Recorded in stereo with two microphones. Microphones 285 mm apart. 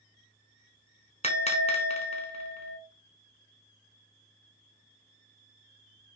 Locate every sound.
1.2 s a bell: 25° left (ahead or behind), 0.8 m